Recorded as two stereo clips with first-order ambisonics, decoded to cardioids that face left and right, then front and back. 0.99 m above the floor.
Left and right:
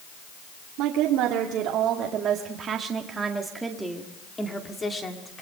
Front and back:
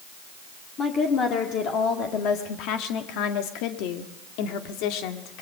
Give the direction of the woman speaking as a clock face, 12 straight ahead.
2 o'clock.